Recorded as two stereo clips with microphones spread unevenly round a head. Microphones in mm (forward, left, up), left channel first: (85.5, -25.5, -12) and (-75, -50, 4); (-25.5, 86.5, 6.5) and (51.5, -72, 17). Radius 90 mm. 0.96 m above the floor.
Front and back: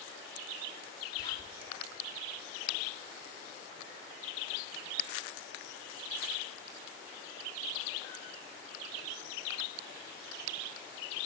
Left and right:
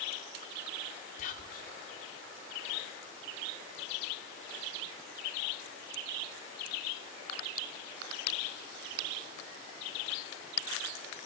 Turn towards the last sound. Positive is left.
turn(degrees=75)